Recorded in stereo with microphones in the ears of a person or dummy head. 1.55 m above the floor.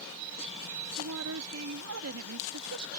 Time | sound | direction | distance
1.0 | a woman speaking | 85° right | ?